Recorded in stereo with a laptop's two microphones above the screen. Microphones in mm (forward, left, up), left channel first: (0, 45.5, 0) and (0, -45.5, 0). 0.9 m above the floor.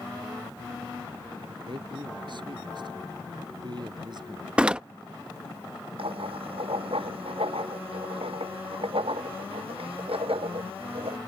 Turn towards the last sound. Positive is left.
turn(degrees=-85)